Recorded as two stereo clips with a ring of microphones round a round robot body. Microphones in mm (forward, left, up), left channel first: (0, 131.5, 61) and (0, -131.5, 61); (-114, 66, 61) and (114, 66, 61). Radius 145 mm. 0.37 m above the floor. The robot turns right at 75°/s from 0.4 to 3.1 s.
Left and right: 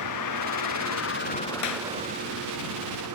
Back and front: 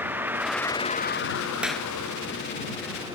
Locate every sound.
0.0 s a vehicle: 80° left; by 3.2 s 75° right
1.6 s a clap: 85° left; by 1.9 s 105° left